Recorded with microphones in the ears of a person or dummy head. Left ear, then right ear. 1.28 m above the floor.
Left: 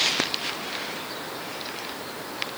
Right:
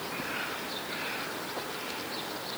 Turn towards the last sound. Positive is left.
No sound to turn to.